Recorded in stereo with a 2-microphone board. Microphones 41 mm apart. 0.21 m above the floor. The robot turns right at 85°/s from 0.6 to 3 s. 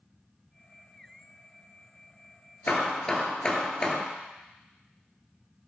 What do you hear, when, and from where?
2.7 s hammering: 50° left (ahead or behind), 0.8 m; by 4.0 s 25° left (ahead or behind), 0.8 m